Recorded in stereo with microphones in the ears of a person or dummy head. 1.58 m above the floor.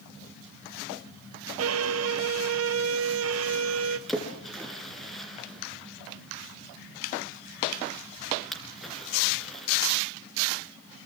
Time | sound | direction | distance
1.6 | a violin | 75° right (ahead or behind) | 1.1 m
4.1 | a splash | centre (ahead or behind) | 4 m